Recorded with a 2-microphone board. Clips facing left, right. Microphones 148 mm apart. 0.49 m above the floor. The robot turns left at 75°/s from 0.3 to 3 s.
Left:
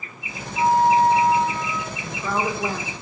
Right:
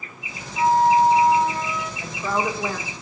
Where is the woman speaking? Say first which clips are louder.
Right 1 dB; 160° right, 0.9 m; by 2.9 s 130° left, 0.9 m.